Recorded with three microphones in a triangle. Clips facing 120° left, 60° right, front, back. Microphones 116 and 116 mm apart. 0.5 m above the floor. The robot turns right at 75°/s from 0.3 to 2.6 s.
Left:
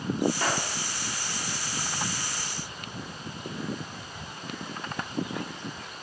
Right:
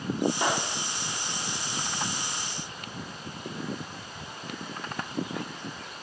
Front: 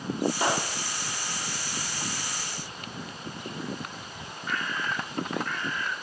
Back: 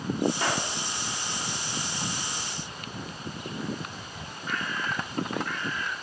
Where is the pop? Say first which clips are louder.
Right 1 dB, front 2 dB; 20° right, 0.5 m; by 0.7 s 5° left, 0.5 m.